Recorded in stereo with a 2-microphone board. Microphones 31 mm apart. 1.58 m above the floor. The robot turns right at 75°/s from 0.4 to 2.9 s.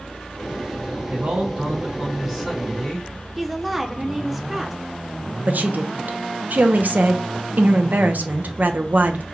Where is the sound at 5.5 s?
65° right (ahead or behind), 0.7 m.